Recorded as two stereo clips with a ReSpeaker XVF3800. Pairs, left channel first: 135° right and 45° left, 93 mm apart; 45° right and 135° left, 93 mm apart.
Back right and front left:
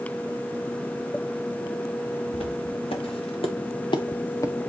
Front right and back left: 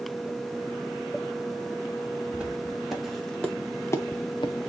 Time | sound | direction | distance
2.3 | footsteps | 145° right | 3 m